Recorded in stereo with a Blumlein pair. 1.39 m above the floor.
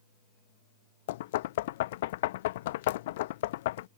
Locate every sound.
1.1 s knocking: 55° left